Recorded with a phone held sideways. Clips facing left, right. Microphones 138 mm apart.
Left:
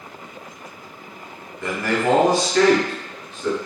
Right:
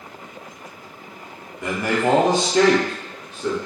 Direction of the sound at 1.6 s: 15° right (ahead or behind).